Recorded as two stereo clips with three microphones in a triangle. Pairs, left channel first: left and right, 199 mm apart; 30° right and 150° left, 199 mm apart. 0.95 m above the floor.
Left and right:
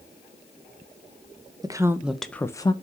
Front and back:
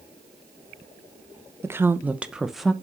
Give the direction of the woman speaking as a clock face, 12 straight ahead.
5 o'clock.